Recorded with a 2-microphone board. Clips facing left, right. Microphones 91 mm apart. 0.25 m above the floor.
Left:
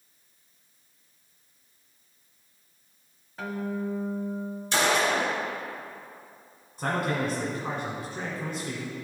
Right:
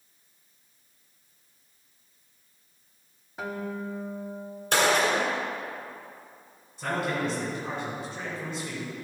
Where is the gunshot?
50° right (ahead or behind), 1.5 m.